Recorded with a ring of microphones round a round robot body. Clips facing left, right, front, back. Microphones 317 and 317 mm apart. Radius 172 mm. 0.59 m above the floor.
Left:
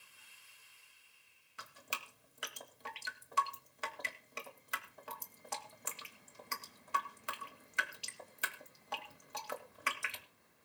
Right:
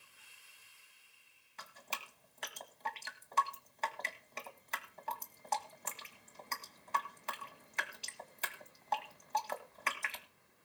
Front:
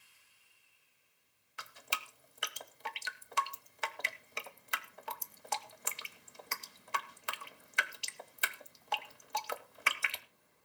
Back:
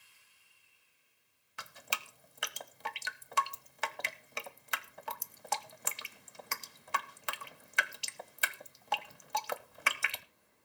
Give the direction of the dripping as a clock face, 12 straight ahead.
6 o'clock.